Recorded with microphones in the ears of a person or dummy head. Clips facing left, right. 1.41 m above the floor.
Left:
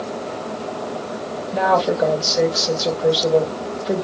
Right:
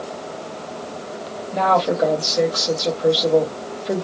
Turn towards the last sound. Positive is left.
turn(degrees=0)  # may be behind; listen again after turning